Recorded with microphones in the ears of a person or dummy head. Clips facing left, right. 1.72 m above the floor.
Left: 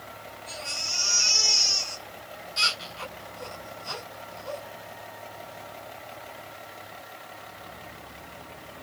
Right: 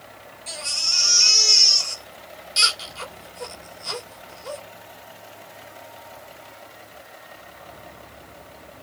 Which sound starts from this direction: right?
A baby crying, at 0.5 s.